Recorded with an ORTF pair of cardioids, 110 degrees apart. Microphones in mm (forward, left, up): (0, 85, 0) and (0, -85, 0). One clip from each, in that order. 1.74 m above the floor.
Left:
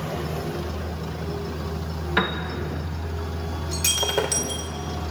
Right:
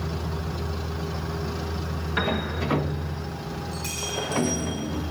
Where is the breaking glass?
65° left, 4 m.